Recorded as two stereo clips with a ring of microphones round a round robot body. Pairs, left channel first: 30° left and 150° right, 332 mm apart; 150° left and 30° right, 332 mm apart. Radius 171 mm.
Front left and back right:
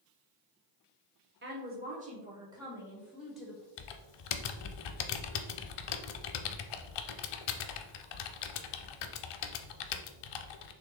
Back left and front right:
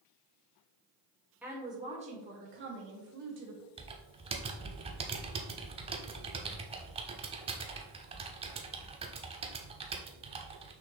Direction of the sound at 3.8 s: 45° left.